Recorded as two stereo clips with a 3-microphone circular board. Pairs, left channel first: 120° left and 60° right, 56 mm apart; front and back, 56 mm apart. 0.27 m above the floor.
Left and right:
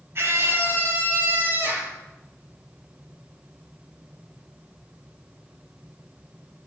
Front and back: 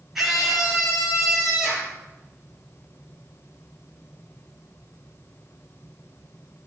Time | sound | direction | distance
0.1 | a scream | 95° right | 6 m